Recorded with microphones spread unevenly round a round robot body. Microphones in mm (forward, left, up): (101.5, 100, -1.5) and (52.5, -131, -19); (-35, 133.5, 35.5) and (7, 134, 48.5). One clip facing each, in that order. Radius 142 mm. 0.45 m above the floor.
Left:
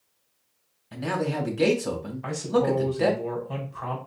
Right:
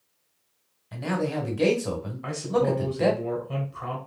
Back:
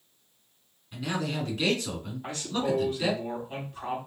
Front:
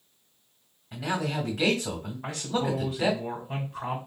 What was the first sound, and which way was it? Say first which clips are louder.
A man speaking: even, front 2 dB; 10° right.